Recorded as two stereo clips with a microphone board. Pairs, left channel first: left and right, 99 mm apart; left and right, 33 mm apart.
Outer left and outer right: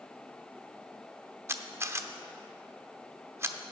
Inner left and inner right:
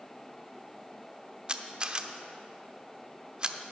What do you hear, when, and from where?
1.5 s a camera shutter: 25° right (ahead or behind), 0.5 m